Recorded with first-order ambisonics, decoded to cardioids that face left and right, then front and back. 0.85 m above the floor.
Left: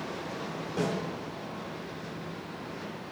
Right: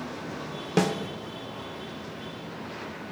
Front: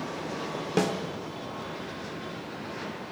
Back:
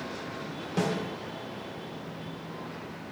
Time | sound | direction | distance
0.8 | a snare drum | 60° right | 0.7 m